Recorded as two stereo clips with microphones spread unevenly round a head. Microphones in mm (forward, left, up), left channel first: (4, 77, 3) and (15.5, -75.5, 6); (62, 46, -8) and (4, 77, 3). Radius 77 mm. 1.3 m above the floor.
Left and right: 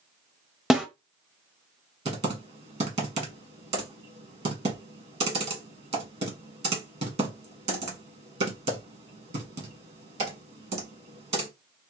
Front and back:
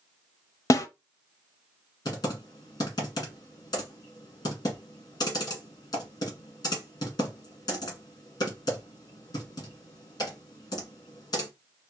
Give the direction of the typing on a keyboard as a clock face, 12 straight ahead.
1 o'clock.